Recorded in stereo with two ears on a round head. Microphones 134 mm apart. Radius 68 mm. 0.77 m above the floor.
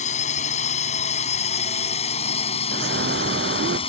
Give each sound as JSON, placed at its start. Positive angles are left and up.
{"t": 0.0, "sound": "a drone", "side_deg": 55}
{"t": 2.7, "sound": "a bird", "side_deg": -85}